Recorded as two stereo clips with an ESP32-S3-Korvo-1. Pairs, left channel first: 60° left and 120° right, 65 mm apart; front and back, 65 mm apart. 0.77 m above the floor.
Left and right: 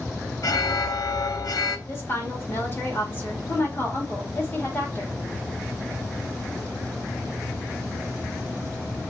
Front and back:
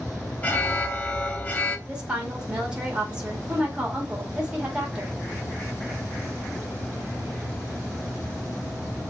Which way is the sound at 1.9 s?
110° left.